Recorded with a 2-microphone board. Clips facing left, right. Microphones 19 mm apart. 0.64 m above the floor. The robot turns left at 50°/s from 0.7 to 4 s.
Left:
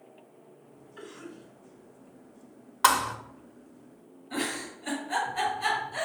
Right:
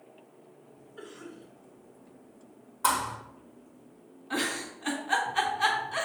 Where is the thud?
65° left (ahead or behind), 1.1 m; by 3.1 s 80° left, 1.1 m.